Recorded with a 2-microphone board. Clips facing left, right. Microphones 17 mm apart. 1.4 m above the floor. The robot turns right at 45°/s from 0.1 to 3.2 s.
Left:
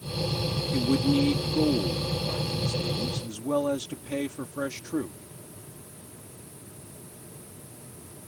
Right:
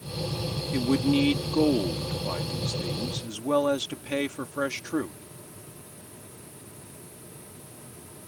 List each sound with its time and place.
0.7 s a man speaking: 155° right; by 5.2 s 45° right